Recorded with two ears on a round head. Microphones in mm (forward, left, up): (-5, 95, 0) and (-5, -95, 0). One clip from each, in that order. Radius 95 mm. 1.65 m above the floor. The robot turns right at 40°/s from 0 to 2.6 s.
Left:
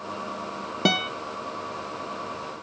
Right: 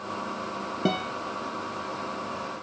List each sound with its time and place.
0.8 s a guitar: 55° left (ahead or behind), 0.7 m; by 1.1 s 45° left (ahead or behind), 0.7 m